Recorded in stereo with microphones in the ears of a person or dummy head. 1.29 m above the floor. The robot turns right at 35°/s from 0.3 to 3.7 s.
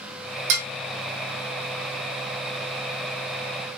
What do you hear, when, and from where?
0.5 s dishes clattering: 65° right (ahead or behind), 1.0 m